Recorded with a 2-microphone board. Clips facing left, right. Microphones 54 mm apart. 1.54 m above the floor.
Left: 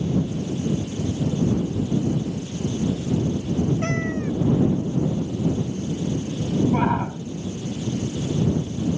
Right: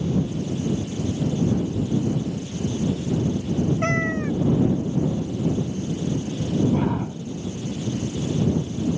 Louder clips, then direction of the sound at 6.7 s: Left 2 dB; 70° left (ahead or behind).